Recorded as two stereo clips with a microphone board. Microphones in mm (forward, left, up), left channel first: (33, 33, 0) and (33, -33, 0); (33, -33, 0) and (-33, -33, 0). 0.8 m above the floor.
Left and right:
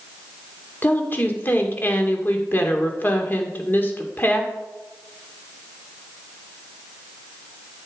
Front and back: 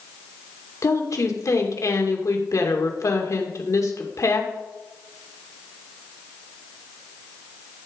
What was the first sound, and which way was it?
A woman speaking, 30° left.